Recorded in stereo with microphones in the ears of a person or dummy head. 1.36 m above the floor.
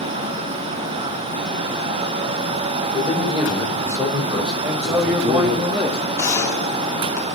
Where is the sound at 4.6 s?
15° right (ahead or behind), 1.7 m.